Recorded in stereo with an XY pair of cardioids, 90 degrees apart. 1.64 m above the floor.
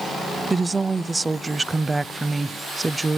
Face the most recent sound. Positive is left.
turn(degrees=-20)